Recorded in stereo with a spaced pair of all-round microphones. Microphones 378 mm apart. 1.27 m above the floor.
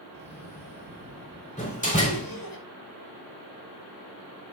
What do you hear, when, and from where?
0.1 s a cough: 60° left (ahead or behind), 3.5 m
1.6 s a door slam: 20° left (ahead or behind), 3 m